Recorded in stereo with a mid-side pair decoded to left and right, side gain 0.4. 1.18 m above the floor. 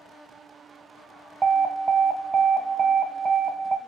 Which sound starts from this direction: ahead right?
An alarm, at 1.4 s.